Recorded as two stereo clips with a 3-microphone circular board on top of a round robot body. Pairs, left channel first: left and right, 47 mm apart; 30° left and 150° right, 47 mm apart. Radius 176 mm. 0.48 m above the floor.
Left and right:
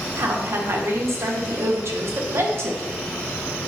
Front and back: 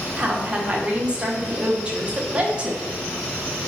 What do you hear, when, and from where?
0.2 s a woman speaking: 85° right, 1.8 m